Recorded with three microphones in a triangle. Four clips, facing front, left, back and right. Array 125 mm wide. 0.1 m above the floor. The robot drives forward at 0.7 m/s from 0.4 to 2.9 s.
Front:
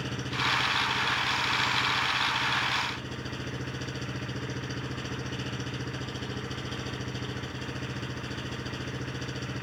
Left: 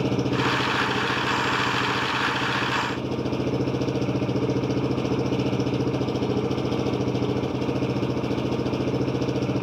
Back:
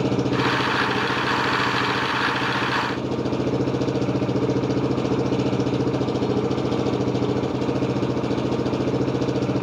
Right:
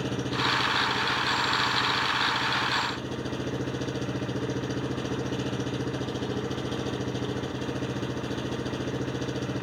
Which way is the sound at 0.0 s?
155° left.